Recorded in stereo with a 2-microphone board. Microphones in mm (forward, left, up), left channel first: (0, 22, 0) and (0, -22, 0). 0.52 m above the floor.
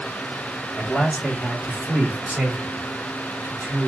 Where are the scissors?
No scissors in this recording.